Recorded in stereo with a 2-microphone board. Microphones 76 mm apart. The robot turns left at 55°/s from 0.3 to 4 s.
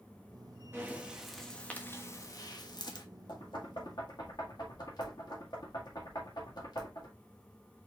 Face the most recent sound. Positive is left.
turn(degrees=60)  # may be behind; listen again after turning